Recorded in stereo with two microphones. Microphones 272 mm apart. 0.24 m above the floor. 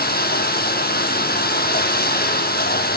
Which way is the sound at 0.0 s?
35° left (ahead or behind).